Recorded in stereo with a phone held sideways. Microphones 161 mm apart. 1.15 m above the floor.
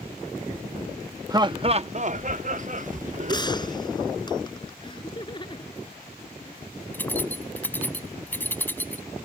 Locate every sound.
1.3 s laughter: 25° right (ahead or behind); by 3.8 s 45° right (ahead or behind)
3.3 s a gunshot: 25° left (ahead or behind)
4.8 s laughter: 30° left (ahead or behind)
6.9 s keys jangling: 10° left (ahead or behind)